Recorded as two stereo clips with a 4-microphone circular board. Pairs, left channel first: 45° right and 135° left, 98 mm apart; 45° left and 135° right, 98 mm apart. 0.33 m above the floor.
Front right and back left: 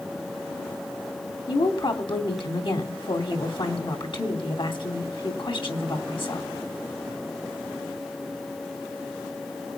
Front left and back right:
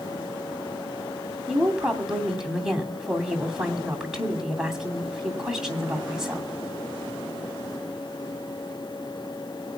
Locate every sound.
1.5 s a woman speaking: 50° right, 2.5 m